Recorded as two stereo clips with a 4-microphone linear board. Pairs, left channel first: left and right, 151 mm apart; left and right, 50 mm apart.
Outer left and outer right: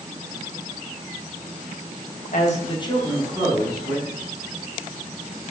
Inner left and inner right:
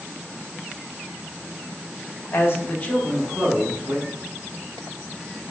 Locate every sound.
2.3 s a man speaking: 55° left (ahead or behind), 0.9 m; by 4.1 s 20° right (ahead or behind), 1.6 m